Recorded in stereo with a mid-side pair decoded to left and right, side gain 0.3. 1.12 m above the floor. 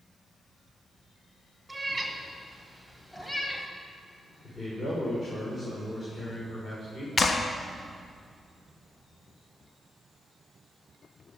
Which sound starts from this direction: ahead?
A cat meowing, at 1.7 s.